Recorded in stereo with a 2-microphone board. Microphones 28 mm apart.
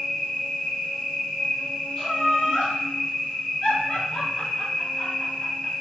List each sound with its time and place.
0.0 s an insect: 70° left (ahead or behind), 1.3 m
2.0 s laughter: 40° left (ahead or behind), 1.6 m